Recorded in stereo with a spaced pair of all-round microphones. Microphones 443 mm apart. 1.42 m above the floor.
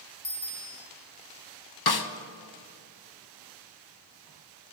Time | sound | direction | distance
0.2 | a bicycle bell | 80° left | 3.5 m
1.9 | a snare drum | 55° left (ahead or behind) | 0.6 m